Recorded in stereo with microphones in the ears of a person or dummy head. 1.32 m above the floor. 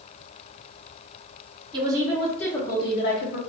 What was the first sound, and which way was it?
A woman speaking, 25° right (ahead or behind).